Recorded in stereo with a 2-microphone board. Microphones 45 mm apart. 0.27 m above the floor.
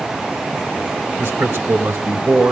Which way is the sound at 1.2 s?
65° right (ahead or behind).